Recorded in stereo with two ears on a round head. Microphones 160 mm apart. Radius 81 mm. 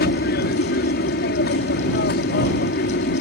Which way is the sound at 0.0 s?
65° left (ahead or behind).